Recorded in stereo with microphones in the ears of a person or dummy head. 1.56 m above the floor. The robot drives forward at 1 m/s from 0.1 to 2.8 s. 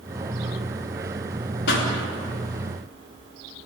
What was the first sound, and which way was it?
A pop, 65° left (ahead or behind).